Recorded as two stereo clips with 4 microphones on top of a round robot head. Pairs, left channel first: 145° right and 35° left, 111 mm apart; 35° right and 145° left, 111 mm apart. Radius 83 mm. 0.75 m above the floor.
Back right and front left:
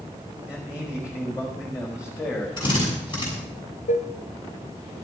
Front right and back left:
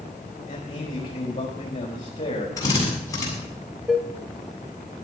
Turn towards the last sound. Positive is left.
turn(degrees=-125)